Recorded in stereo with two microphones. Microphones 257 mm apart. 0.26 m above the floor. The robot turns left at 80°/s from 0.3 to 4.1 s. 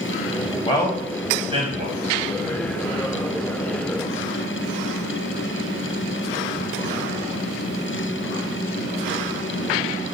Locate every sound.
0.7 s a man speaking: 20° left (ahead or behind), 1.2 m; by 3.1 s 10° right (ahead or behind), 1.2 m